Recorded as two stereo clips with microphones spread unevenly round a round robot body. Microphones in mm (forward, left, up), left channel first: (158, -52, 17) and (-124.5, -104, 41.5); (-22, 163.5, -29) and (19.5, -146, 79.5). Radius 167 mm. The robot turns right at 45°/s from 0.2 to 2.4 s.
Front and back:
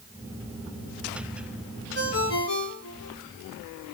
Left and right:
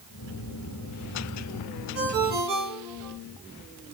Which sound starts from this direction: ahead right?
A ringtone, at 1.9 s.